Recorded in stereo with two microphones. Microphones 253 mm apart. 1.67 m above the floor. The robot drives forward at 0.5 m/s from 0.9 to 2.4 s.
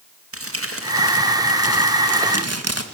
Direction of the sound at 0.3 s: 60° right (ahead or behind).